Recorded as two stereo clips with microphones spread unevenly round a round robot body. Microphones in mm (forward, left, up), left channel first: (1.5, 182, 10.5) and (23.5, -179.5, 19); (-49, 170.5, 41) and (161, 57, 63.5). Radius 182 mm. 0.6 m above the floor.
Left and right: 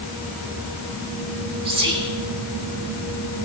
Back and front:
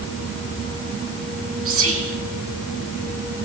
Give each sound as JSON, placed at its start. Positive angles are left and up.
{"t": 1.6, "sound": "whispering", "azimuth_deg": -10, "distance_m": 2.0}